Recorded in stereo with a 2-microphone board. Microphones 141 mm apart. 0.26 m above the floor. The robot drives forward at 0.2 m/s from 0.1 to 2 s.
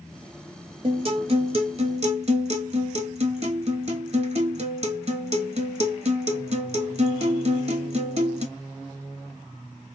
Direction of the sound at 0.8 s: 40° right (ahead or behind).